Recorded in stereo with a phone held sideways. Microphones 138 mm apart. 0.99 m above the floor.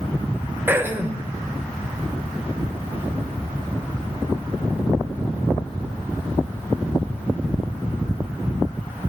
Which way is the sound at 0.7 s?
15° right (ahead or behind).